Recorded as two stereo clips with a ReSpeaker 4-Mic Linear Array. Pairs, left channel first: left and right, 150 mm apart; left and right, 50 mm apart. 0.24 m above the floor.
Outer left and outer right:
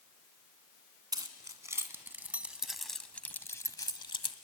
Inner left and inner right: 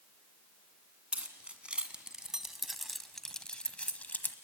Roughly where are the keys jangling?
Right.